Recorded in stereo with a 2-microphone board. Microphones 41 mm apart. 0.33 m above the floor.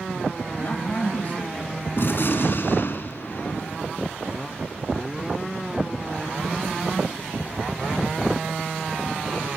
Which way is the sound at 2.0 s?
55° left (ahead or behind).